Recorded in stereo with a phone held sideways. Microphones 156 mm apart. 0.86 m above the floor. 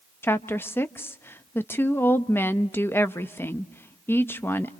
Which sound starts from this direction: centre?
A woman speaking, at 0.2 s.